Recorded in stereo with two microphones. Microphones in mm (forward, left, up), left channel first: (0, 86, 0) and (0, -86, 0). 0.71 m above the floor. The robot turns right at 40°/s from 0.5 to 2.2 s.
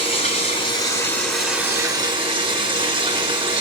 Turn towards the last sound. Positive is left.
turn(degrees=-145)